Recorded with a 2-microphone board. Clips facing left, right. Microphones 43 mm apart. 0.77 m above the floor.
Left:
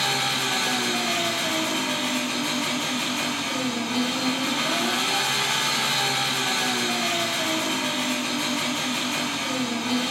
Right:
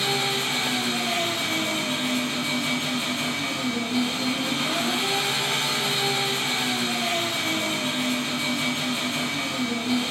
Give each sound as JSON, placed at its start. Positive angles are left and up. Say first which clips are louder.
{"t": 0.0, "sound": "an engine running", "louder": "even", "side_deg": 65, "distance_m": 4.0}